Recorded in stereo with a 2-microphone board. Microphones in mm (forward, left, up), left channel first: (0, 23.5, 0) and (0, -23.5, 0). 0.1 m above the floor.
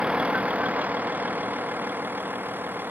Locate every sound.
0.0 s a vehicle: 25° right (ahead or behind); by 2.9 s 45° right (ahead or behind)